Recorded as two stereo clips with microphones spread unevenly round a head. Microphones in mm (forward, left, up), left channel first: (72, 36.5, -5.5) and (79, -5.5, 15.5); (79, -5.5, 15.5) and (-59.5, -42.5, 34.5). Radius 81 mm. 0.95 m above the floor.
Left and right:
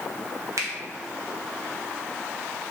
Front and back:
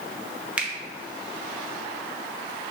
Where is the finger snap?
80° right, 0.9 m.